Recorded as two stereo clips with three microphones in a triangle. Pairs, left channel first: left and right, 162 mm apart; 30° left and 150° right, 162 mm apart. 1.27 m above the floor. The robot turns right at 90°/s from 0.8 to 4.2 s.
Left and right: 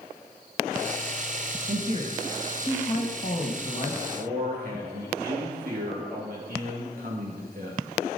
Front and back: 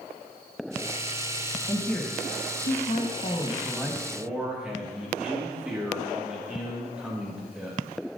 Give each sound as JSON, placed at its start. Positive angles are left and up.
{"t": 1.7, "sound": "a woman speaking", "azimuth_deg": -70, "distance_m": 1.4}
{"t": 4.1, "sound": "a man speaking", "azimuth_deg": -80, "distance_m": 1.9}